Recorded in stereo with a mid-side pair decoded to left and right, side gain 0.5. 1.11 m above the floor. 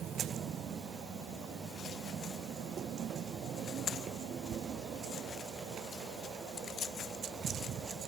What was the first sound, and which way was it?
Only background noise.